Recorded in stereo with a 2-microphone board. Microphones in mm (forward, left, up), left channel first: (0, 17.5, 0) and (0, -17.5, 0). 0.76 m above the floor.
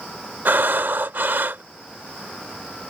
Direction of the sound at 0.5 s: 70° right (ahead or behind).